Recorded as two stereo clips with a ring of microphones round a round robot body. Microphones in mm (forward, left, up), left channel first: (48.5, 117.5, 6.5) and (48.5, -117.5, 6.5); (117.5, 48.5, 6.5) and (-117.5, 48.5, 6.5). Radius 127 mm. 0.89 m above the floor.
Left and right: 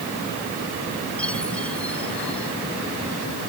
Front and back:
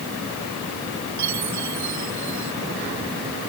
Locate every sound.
1.2 s a chime: 175° left